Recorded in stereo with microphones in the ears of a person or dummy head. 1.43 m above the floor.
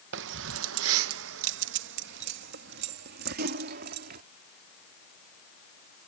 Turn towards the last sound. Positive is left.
turn(degrees=-50)  # may be behind; listen again after turning